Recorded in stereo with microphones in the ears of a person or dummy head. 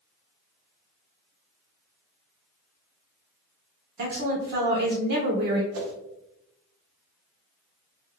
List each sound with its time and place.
4.0 s a woman speaking: 50° right (ahead or behind), 1.0 m
5.7 s a whoosh: 85° right, 0.7 m